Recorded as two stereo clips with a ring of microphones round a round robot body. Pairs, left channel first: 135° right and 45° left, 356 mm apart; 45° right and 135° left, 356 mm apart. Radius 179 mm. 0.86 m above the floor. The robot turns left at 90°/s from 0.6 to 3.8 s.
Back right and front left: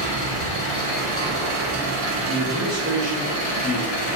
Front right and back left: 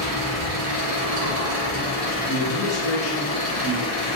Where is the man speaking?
10° left, 0.8 m; by 4.1 s 130° right, 0.8 m.